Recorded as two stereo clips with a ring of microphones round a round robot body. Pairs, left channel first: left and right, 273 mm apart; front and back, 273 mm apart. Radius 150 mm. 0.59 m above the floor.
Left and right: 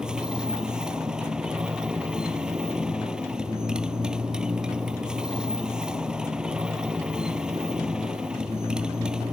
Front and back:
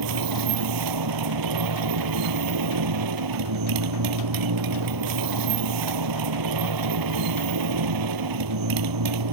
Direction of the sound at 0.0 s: Straight behind.